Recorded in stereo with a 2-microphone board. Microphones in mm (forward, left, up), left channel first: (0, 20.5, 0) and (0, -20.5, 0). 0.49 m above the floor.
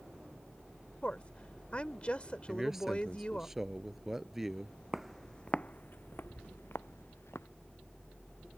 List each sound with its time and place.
1.0 s a woman speaking: 30° left (ahead or behind)
2.5 s a man speaking: 10° right (ahead or behind)
4.9 s footsteps: 10° right (ahead or behind); by 7.5 s 75° left (ahead or behind)